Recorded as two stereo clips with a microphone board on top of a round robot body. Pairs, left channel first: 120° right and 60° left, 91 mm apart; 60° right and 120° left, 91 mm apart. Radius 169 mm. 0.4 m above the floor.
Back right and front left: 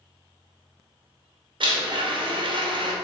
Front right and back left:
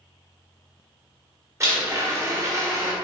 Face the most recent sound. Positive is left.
turn(degrees=65)